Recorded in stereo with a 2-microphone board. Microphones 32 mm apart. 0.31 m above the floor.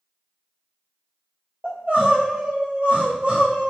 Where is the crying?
50° right (ahead or behind), 1.5 m.